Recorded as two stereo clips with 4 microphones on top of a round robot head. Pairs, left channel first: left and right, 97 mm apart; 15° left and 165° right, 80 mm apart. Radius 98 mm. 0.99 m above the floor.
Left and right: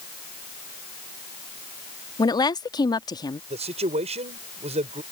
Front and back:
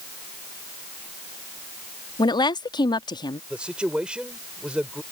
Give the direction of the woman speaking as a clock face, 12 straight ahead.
11 o'clock.